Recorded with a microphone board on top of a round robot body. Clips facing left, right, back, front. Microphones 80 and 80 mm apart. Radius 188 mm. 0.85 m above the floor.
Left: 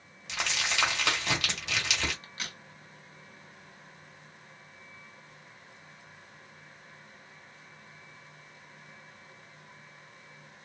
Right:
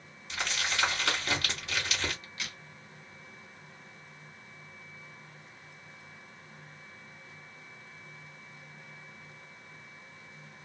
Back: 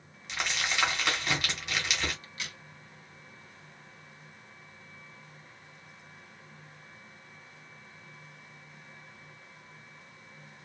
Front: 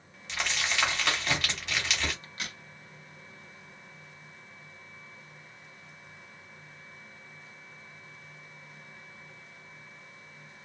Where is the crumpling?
95° left, 1.9 m.